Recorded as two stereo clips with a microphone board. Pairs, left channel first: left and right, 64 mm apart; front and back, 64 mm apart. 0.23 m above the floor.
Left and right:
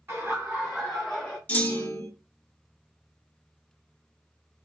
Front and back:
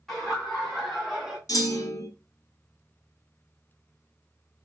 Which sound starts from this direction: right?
Laughter, at 0.1 s.